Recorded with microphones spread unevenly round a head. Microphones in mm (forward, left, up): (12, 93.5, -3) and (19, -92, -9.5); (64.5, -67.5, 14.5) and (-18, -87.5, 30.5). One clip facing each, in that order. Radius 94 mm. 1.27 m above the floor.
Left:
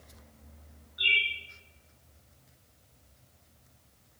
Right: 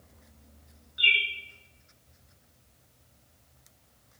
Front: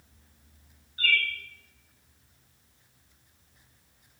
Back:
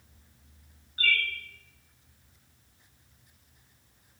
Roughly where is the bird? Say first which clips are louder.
Right 2 dB, front 1 dB; behind right.